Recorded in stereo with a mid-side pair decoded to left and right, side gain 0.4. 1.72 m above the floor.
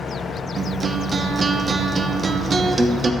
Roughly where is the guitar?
Ahead right.